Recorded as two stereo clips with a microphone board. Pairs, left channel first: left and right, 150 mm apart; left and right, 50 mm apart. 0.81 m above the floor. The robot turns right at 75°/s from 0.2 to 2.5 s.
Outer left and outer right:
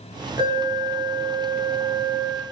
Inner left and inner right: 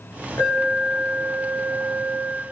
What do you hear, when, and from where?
0.4 s an alarm: 115° left, 4.5 m; by 2.4 s 90° right, 4.5 m